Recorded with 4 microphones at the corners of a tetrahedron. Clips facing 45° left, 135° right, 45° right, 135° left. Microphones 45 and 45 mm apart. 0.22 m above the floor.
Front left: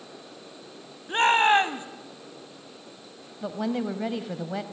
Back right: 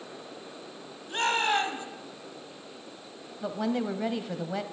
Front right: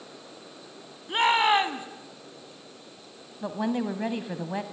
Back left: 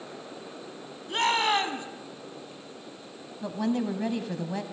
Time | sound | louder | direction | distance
1.1 | a shout | front left 7 dB, front right 3 dB | 15° left | 1.2 m
3.4 | a woman speaking | front left 1 dB, even | 40° right | 1.0 m